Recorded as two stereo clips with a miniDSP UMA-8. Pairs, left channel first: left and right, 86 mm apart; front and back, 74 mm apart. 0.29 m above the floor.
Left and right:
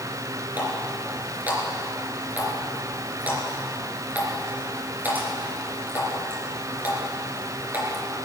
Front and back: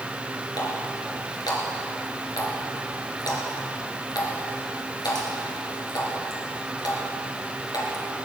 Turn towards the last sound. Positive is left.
turn(degrees=-20)